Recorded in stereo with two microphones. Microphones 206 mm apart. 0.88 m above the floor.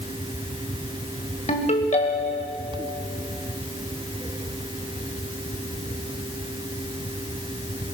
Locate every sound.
1.5 s a ringtone: 35° left (ahead or behind), 1.8 m